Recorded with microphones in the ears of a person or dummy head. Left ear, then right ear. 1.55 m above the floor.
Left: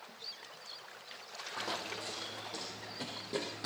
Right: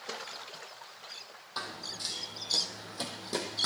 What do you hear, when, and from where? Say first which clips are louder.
1.6 s running footsteps: right 2 dB; 60° right (ahead or behind), 3 m; by 3.7 s 45° right (ahead or behind), 3.5 m